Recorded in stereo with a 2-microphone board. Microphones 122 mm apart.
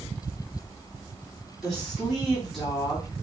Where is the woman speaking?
Centre (ahead or behind), 2.5 m.